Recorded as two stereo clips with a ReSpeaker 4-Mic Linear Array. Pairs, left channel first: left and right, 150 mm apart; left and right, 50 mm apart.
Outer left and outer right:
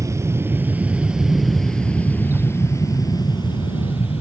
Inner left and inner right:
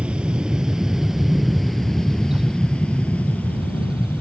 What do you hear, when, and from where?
0.0 s an aircraft: 20° right (ahead or behind); by 4.2 s 40° left (ahead or behind)